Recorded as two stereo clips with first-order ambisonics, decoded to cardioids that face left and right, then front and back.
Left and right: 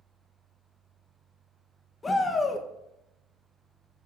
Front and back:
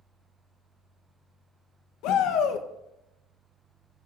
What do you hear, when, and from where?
2.0 s a shout: 15° left, 1.3 m